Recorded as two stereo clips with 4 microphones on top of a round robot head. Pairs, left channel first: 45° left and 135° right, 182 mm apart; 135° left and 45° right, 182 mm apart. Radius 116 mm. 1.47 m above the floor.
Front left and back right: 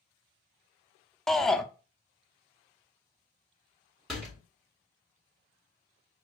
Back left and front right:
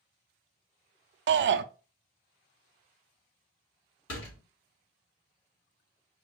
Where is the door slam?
135° left, 3 m.